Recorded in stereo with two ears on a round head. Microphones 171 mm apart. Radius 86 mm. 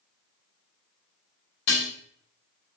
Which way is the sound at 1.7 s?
70° left (ahead or behind).